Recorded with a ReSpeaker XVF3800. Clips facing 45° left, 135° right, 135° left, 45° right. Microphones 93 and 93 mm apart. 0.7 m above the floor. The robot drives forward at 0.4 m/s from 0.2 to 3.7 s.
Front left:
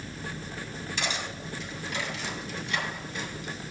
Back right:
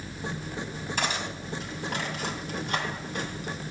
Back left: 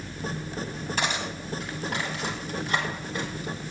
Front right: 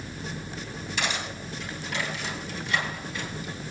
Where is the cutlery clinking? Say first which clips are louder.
Back right 3 dB, back left 1 dB; 175° right, 3 m; by 3.7 s straight behind, 4 m.